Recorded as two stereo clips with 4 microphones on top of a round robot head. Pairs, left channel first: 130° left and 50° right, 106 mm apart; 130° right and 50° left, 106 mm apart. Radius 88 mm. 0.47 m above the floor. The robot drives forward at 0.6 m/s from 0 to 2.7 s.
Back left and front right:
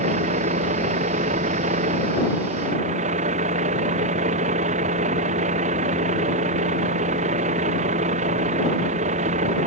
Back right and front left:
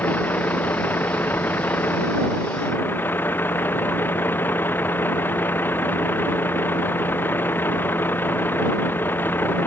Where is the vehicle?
55° right; by 9.7 s 60° right.